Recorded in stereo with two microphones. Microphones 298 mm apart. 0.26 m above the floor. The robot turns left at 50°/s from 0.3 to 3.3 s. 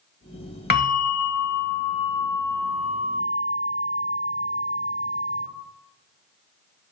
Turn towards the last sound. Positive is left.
turn(degrees=-20)